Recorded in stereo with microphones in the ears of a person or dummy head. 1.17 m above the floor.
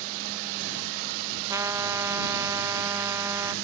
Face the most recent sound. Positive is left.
turn(degrees=-15)  # may be behind; listen again after turning